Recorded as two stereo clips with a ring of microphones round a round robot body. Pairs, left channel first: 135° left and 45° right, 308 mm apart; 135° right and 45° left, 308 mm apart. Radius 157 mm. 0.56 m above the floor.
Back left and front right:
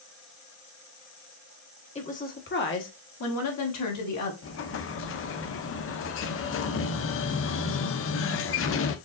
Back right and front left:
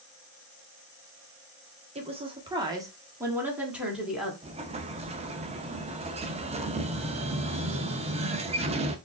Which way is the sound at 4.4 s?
110° left.